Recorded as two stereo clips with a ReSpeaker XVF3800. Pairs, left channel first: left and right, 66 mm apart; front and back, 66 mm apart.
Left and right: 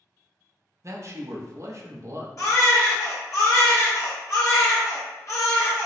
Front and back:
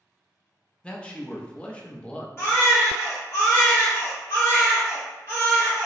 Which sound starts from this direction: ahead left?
A baby crying, at 2.4 s.